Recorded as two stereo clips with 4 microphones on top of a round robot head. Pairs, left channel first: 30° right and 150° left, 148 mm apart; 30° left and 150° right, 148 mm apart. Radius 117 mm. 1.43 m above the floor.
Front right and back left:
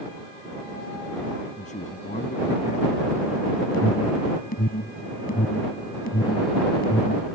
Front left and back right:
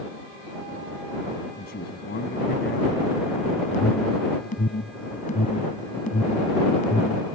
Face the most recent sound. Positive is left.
turn(degrees=-5)